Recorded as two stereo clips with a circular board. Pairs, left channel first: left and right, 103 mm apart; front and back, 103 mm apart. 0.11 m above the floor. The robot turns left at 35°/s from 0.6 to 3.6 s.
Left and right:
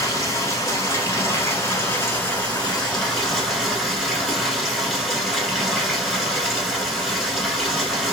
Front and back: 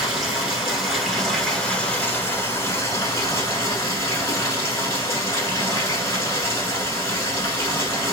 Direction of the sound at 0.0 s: 100° left.